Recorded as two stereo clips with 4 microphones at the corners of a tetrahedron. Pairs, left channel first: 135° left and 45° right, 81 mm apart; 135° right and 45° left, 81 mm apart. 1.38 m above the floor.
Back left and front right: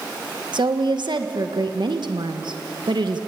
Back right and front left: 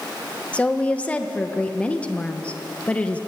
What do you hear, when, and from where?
0.5 s a woman speaking: 60° right, 1.5 m